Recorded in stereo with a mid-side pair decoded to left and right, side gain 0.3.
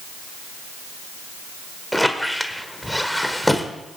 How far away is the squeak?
About 1.6 m.